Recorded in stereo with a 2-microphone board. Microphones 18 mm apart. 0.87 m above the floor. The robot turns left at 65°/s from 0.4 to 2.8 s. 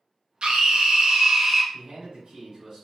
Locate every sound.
0.4 s a scream: 75° right, 0.8 m; by 1.6 s 155° right, 0.8 m
1.7 s a man speaking: 110° right, 1.9 m; by 2.9 s straight behind, 1.9 m